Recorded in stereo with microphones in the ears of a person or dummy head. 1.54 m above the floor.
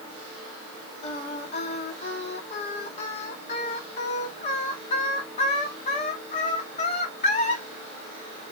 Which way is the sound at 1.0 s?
40° left (ahead or behind).